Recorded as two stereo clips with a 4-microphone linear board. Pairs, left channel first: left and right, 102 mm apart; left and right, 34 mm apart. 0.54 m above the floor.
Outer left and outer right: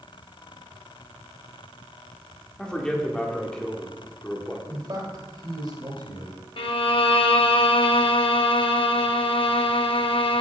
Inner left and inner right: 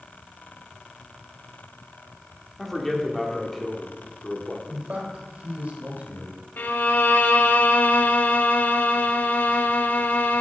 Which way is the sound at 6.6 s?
60° left (ahead or behind).